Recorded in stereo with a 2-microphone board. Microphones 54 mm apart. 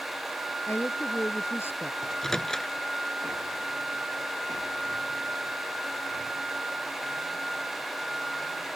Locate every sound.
0.7 s a woman speaking: 50° left (ahead or behind)
2.0 s a microwave: 10° left (ahead or behind)